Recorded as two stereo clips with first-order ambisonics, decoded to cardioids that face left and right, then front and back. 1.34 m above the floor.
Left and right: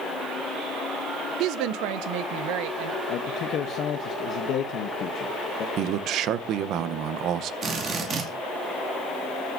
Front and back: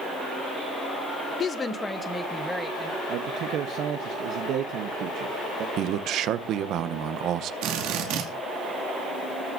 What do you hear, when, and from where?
1.4 s a woman speaking: 60° right, 0.5 m; by 3.0 s 95° right, 1.6 m
3.1 s a man speaking: 140° left, 0.8 m
5.8 s a man speaking: 135° right, 0.7 m
7.6 s a drill: 150° right, 2.5 m